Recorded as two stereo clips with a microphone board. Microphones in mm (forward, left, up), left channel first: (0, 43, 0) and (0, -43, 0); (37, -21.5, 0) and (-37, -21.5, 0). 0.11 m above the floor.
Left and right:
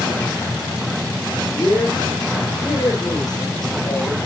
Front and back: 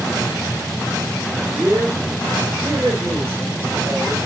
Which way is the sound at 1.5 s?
135° left.